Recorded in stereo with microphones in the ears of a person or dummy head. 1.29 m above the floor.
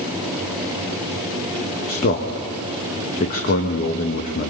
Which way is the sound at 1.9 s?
50° left (ahead or behind).